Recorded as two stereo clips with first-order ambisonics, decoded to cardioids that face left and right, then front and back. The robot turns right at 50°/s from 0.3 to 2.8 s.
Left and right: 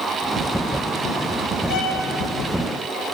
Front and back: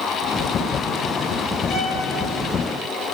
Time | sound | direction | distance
1.7 | a violin | 50° left | 1.5 m